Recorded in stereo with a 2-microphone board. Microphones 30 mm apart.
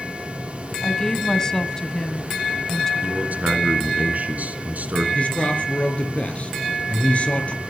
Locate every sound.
0.8 s a woman speaking: 20° left (ahead or behind), 1.4 m
3.0 s a man speaking: 55° right (ahead or behind), 3 m
5.2 s a man speaking: 50° left (ahead or behind), 4 m